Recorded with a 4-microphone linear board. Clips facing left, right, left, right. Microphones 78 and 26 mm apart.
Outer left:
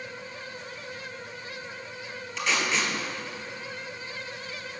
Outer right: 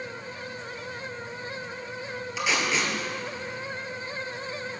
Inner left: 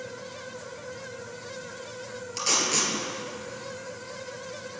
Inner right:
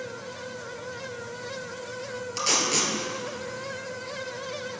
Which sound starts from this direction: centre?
Tape being pulled, at 2.4 s.